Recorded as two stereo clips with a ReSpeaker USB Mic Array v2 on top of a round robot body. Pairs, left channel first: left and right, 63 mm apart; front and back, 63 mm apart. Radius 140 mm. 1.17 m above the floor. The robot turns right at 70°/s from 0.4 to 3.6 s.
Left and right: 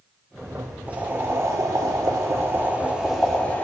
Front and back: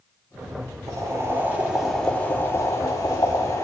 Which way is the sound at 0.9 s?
160° right.